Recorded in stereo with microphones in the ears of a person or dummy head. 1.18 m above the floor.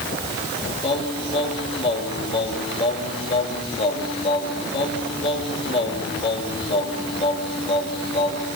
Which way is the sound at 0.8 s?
30° left (ahead or behind).